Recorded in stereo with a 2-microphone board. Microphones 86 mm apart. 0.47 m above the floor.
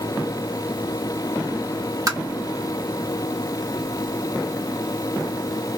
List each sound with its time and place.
2.1 s tapping: 45° right (ahead or behind), 1.6 m